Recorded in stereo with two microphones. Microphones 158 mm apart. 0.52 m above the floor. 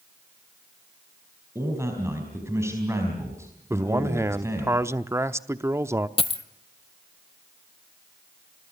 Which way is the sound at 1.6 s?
15° right (ahead or behind).